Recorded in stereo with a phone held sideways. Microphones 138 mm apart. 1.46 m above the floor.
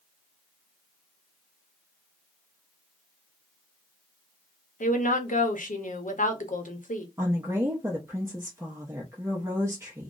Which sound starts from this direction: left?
A woman speaking, at 4.8 s.